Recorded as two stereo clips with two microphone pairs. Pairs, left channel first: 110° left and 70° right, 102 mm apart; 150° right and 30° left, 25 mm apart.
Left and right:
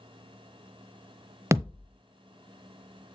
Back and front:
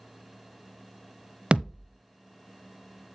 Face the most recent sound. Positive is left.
turn(degrees=-10)